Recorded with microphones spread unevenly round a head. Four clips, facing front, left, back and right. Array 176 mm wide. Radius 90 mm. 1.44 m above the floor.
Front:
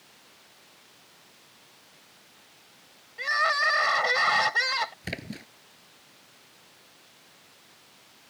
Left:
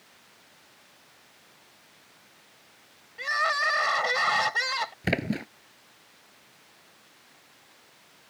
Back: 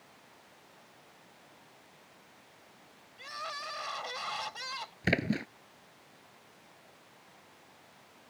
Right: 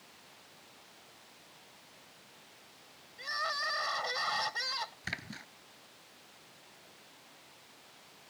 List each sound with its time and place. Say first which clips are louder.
3.2 s crying: left 10 dB, front 15 dB; 35° left
5.0 s a splash: left 16 dB, back 8 dB; 120° left